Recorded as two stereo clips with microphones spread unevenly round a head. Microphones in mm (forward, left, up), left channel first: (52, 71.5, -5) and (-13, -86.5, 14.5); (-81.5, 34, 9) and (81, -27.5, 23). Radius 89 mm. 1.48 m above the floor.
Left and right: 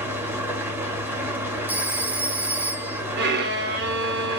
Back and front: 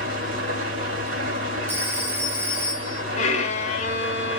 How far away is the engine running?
About 1.7 m.